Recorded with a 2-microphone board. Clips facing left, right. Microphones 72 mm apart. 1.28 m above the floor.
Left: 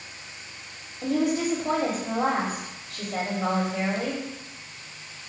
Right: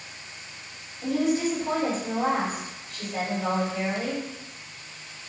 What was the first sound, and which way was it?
A woman speaking, 65° left (ahead or behind).